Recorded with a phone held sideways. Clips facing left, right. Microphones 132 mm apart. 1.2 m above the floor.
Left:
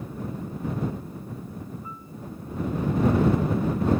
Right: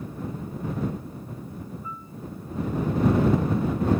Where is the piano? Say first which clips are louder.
Right 2 dB; 40° left (ahead or behind).